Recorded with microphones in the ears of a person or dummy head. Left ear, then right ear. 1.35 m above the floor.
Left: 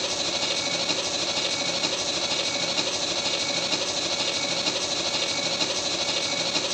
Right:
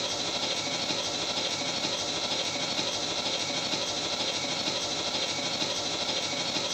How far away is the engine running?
About 0.9 m.